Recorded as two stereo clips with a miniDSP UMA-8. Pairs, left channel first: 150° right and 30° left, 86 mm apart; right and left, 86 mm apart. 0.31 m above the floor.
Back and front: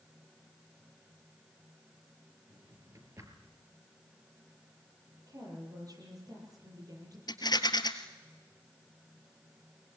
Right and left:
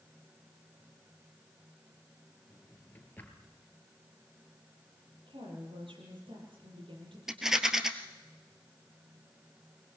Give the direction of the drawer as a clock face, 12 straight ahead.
1 o'clock.